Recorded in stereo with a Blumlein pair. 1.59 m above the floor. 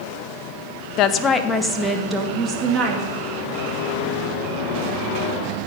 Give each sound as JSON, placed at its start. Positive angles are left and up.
{"t": 1.0, "sound": "a woman speaking", "azimuth_deg": 40, "distance_m": 0.9}